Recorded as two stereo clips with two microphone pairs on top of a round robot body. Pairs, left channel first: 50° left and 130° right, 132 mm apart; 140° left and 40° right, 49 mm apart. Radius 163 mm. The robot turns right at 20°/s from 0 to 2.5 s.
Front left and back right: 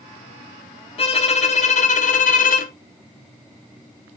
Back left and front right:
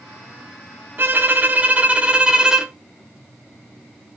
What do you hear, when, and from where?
1.0 s a violin: 5° left, 0.8 m; by 2.7 s 35° left, 0.8 m